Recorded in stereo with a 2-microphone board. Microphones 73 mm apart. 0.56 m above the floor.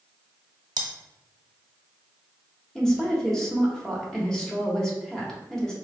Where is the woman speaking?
5° left (ahead or behind), 1.1 m.